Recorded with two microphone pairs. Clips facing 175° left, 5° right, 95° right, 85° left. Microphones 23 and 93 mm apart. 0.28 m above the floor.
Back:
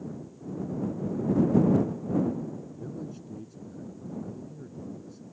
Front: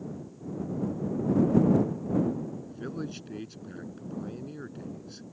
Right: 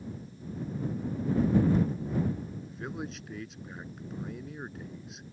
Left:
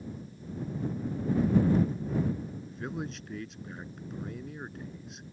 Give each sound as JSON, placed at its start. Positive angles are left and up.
{"t": 2.7, "sound": "a man speaking", "azimuth_deg": -5}